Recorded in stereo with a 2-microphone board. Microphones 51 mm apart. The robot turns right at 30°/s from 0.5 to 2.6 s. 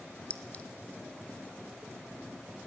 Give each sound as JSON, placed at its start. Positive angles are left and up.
{"t": 0.3, "sound": "a clink", "side_deg": 25, "distance_m": 0.9}